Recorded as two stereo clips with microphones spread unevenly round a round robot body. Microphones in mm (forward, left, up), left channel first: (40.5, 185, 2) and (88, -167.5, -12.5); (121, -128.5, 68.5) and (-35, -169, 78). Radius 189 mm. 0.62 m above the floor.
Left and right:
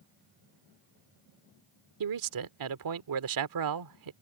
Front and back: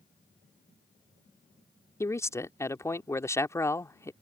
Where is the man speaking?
60° right.